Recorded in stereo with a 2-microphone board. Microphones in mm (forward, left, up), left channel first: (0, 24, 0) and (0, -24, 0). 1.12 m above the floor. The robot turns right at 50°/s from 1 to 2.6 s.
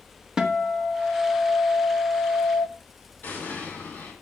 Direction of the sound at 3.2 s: 40° left (ahead or behind).